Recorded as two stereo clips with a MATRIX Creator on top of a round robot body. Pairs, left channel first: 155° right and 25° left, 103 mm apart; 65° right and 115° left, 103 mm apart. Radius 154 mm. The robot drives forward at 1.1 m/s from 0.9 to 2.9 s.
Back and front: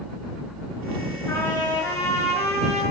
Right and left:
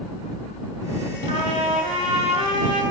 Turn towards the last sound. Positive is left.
turn(degrees=145)